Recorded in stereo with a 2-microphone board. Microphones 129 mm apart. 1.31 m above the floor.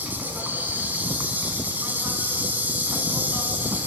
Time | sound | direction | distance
0.0 | an insect | 15° right (ahead or behind) | 4 m